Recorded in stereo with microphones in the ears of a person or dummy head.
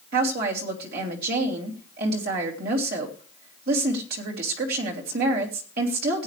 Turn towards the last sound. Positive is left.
turn(degrees=-60)  # may be behind; listen again after turning